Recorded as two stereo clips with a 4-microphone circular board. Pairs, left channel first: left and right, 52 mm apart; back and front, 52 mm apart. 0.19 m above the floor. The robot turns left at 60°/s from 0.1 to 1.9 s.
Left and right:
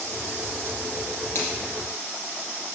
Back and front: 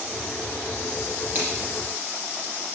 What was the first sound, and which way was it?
A finger snap, 50° left.